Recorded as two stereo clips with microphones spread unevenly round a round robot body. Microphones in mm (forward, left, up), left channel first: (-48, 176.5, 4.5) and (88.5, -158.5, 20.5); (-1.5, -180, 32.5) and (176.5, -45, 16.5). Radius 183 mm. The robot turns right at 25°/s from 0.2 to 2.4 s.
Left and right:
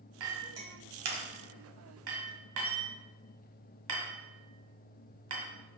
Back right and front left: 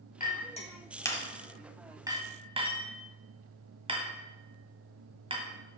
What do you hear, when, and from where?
0.2 s a clink: 85° right, 1.5 m; by 5.5 s 30° right, 1.5 m